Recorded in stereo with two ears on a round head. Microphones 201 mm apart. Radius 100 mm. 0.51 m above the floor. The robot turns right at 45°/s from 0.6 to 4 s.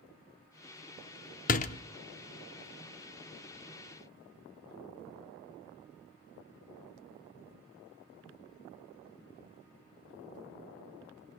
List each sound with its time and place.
1.5 s a door slam: 35° left (ahead or behind), 0.5 m; by 1.8 s 30° left (ahead or behind), 0.5 m